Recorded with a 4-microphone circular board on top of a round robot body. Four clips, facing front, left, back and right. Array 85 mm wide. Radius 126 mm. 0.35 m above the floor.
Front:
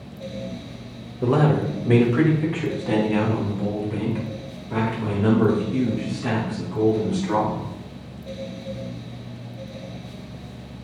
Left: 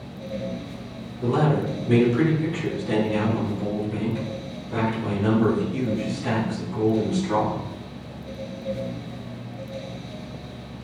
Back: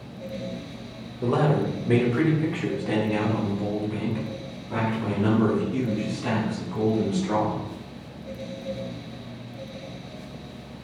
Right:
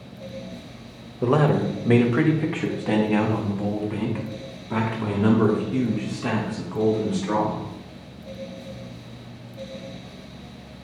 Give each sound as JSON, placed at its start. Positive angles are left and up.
{"t": 1.2, "sound": "a man speaking", "azimuth_deg": -80, "distance_m": 1.5}